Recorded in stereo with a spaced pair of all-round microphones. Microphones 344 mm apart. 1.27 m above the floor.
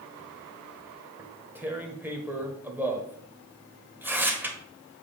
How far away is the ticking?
I don't hear ticking.